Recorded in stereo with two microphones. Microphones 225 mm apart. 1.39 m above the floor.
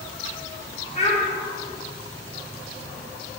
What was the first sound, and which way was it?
A child speaking, 30° left (ahead or behind).